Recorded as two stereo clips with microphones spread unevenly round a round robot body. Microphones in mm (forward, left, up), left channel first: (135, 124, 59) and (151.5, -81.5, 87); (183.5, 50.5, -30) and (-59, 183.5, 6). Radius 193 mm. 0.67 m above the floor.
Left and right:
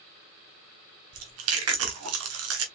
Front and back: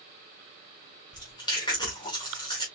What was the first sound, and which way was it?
Chewing, 110° right.